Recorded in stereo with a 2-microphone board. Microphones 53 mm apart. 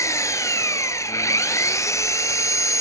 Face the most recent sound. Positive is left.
turn(degrees=70)  # may be behind; listen again after turning